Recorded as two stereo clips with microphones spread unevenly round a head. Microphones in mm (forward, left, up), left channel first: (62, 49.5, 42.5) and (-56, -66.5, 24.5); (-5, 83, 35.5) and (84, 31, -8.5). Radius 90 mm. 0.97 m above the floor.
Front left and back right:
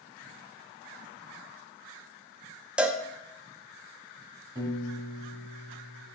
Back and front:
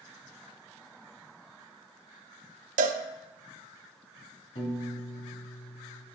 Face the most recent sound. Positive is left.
turn(degrees=155)